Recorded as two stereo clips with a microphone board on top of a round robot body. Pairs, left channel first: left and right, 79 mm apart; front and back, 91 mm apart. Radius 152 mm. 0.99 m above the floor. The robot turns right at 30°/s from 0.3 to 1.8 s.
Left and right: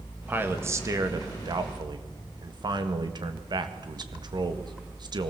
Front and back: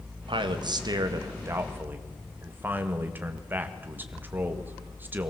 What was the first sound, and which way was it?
A man speaking, 155° right.